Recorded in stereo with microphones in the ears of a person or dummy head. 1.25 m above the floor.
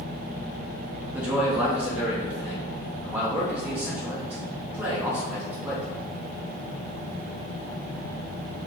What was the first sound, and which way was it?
A man speaking, 10° right (ahead or behind).